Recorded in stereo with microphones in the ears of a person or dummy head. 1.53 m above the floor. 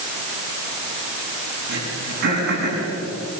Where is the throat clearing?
65° right (ahead or behind), 7.5 m.